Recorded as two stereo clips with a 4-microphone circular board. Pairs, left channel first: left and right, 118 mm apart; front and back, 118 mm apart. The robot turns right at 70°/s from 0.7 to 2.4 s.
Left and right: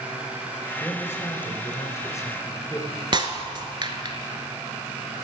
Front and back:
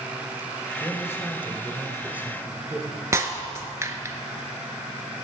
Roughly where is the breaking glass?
Behind right.